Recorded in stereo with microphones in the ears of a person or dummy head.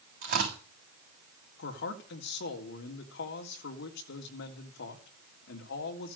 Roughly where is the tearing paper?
Right.